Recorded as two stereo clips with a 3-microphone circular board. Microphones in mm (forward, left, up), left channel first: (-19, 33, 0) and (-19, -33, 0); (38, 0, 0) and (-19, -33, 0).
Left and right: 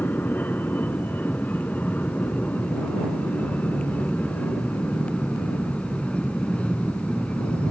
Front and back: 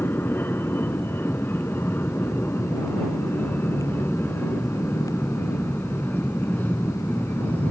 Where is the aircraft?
55° left; by 7.7 s 45° left.